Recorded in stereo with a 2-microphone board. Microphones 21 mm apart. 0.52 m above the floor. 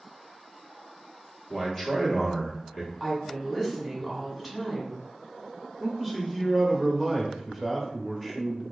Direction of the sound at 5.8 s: 10° right (ahead or behind).